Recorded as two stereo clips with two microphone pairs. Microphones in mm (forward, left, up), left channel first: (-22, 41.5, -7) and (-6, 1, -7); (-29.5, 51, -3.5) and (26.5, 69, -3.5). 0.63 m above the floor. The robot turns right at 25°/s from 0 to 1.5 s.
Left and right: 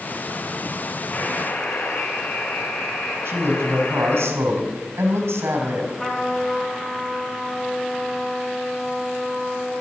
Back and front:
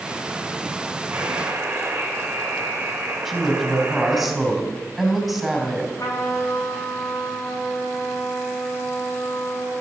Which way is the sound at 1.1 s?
70° left.